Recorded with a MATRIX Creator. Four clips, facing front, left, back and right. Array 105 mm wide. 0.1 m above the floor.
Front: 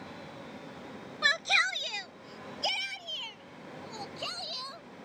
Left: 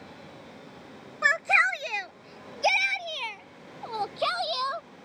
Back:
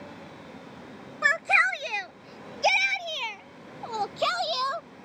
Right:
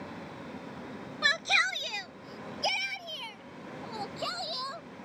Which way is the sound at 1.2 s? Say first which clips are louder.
Left 6 dB, back 6 dB; 135° left.